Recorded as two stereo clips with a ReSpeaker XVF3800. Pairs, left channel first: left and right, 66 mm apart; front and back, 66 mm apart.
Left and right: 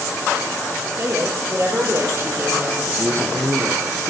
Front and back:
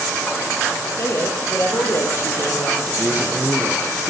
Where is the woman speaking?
45° right, 5 m.